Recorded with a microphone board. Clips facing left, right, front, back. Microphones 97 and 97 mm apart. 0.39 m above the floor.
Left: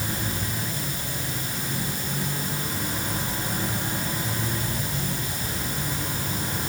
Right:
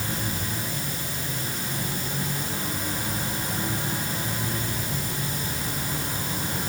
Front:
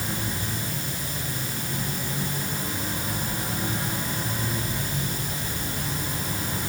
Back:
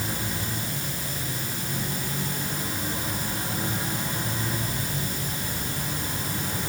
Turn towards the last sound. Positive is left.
No sound to turn to.